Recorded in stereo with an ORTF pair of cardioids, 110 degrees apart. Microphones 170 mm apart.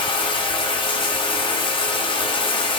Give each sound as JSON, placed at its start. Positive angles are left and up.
{"t": 0.0, "sound": "running water", "azimuth_deg": 30, "distance_m": 0.8}